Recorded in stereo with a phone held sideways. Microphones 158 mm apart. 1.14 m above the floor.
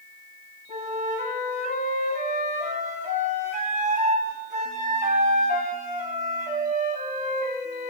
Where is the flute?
50° right (ahead or behind), 3.5 m.